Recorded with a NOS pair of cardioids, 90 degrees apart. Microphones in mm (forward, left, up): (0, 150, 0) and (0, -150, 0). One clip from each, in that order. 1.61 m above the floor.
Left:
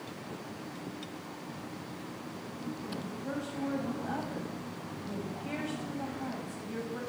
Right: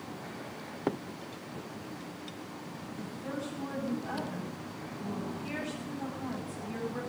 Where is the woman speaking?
65° right, 8 m.